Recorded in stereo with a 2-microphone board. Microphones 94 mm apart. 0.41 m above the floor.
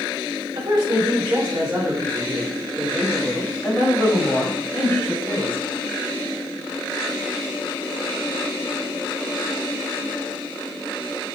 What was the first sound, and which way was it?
A woman speaking, 50° right (ahead or behind).